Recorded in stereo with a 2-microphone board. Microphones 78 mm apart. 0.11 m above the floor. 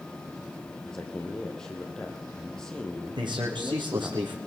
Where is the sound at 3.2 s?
70° right (ahead or behind), 6 m.